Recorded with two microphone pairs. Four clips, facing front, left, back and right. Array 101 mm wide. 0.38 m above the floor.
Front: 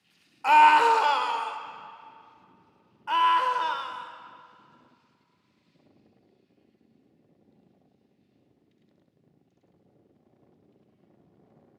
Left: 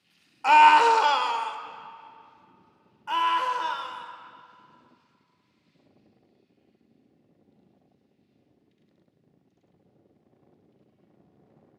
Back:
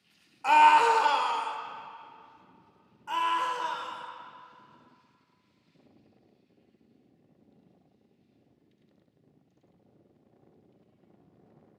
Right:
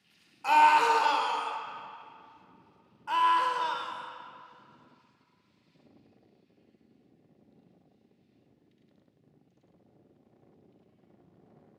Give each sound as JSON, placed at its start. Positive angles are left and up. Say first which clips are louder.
{"t": 0.4, "sound": "a scream", "louder": "left 6 dB, front 2 dB", "azimuth_deg": 65, "distance_m": 0.9}
{"t": 3.1, "sound": "a scream", "louder": "even, front 6 dB", "azimuth_deg": 10, "distance_m": 1.0}